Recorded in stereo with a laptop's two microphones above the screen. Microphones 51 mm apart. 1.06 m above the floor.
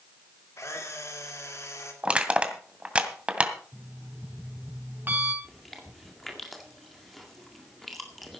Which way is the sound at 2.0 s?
20° right (ahead or behind).